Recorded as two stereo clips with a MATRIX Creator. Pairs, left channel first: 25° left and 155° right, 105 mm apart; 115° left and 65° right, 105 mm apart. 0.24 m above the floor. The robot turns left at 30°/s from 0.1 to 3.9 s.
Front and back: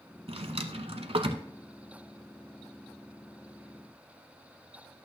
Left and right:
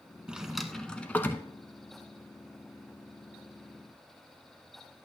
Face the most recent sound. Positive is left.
turn(degrees=105)